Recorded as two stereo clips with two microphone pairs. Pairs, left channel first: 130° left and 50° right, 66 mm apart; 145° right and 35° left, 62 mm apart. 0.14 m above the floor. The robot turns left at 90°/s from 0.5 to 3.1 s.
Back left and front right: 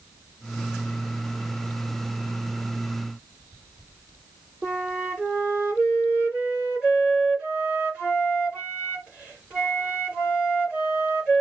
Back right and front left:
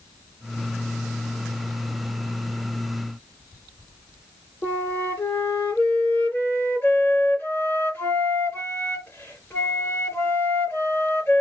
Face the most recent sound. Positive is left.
turn(degrees=-120)